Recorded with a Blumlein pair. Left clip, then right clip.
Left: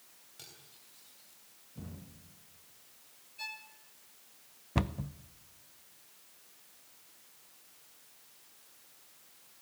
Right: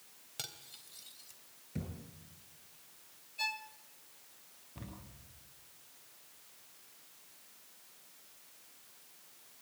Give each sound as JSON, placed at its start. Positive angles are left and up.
{"t": 0.4, "sound": "cutlery clinking", "azimuth_deg": -30, "distance_m": 3.5}
{"t": 1.8, "sound": "a thud", "azimuth_deg": -50, "distance_m": 9.0}
{"t": 3.4, "sound": "a violin", "azimuth_deg": -20, "distance_m": 1.5}
{"t": 4.8, "sound": "a cupboard door", "azimuth_deg": 50, "distance_m": 0.8}